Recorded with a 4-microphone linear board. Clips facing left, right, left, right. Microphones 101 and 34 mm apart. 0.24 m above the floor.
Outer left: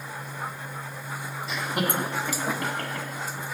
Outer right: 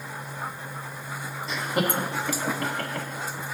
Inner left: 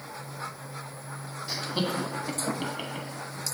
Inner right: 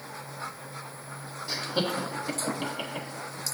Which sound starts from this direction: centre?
Laughter, at 1.5 s.